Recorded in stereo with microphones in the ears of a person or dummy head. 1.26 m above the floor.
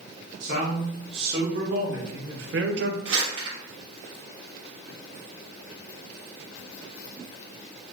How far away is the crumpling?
About 2.5 m.